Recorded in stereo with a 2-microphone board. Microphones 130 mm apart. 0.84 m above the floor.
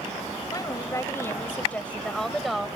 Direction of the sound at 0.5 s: 30° left (ahead or behind).